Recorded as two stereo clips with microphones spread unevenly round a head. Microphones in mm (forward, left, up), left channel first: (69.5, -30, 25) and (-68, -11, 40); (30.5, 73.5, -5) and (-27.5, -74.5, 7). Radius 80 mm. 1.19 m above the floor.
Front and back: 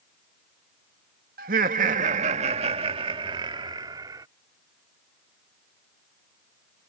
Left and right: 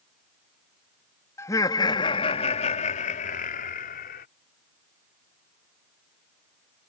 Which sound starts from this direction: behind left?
Laughter, at 1.4 s.